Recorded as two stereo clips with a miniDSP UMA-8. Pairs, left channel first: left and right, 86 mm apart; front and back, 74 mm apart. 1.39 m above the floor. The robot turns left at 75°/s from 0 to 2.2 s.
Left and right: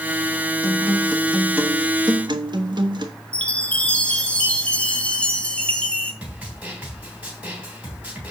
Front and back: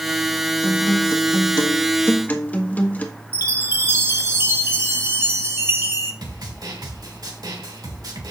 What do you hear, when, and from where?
0.6 s a guitar: 50° left, 1.3 m; by 3.1 s 65° right, 1.3 m
3.3 s a chime: 155° left, 1.2 m
6.2 s a snare drum: 165° right, 3 m